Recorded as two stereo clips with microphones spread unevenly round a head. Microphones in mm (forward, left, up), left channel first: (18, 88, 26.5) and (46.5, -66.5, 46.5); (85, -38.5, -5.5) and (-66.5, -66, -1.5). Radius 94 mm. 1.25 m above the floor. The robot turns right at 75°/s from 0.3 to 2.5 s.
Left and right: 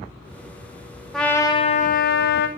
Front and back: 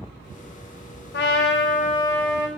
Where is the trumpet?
10° left, 1.2 m; by 2.5 s 110° left, 1.2 m.